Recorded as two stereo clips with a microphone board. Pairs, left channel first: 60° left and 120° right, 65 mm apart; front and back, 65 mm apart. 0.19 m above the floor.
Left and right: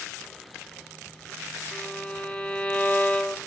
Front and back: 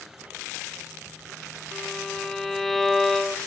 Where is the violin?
75° left, 1.1 m.